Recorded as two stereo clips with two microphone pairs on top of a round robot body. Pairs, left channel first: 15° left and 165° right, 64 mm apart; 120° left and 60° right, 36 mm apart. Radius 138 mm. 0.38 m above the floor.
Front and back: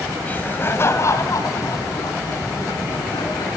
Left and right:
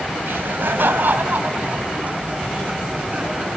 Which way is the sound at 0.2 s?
55° right.